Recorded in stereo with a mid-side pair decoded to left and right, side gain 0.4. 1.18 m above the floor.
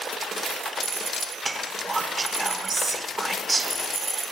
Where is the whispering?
30° right, 0.6 m.